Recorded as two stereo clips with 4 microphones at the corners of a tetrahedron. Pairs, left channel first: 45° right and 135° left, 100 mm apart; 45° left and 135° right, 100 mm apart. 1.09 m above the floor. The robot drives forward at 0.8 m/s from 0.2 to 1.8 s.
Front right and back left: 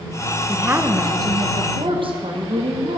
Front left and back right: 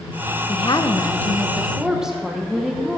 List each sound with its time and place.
0.5 s a woman speaking: 60° left, 0.9 m; by 3.0 s 140° left, 1.1 m